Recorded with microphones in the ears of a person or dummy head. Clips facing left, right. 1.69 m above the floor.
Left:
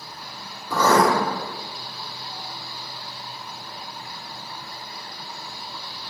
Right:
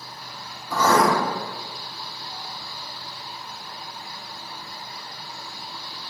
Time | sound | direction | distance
0.7 | writing | 65° left (ahead or behind) | 0.9 m